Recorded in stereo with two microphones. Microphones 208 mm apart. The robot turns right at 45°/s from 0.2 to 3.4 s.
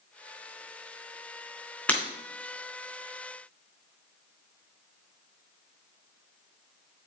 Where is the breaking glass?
5° left (ahead or behind), 3 m; by 2.0 s 15° left (ahead or behind), 3 m.